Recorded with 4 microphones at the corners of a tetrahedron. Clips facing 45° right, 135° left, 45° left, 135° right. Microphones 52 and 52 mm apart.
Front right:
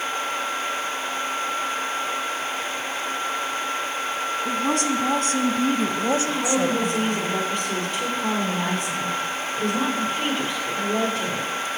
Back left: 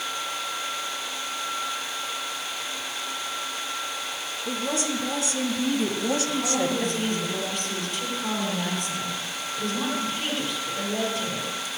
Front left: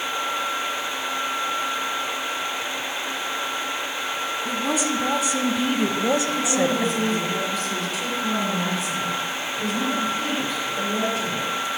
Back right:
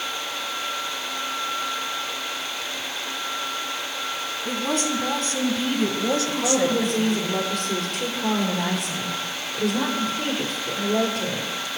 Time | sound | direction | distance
4.5 | a woman speaking | 40° right | 2 m
6.3 | a woman speaking | 100° right | 7 m